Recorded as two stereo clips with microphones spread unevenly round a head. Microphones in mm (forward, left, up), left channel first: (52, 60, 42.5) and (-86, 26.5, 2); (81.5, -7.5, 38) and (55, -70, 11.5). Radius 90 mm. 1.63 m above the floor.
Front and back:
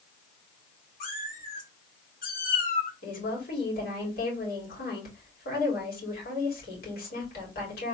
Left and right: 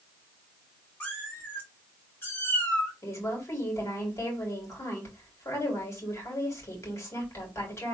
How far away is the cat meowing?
About 2.5 m.